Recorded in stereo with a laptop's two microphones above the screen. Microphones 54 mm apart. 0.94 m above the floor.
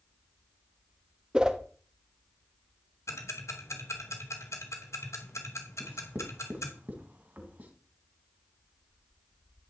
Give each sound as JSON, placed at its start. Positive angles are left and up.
{"t": 1.3, "sound": "a whoosh", "side_deg": -15, "distance_m": 1.6}
{"t": 3.1, "sound": "ticking", "side_deg": 75, "distance_m": 3.0}
{"t": 5.8, "sound": "writing", "side_deg": -35, "distance_m": 2.0}